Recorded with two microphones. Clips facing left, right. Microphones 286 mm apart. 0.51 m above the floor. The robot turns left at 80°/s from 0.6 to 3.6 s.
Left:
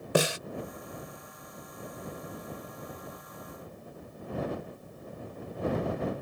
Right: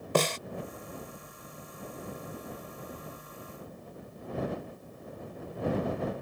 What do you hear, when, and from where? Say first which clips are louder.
0.1 s a snare drum: left 1 dB; 10° left (ahead or behind)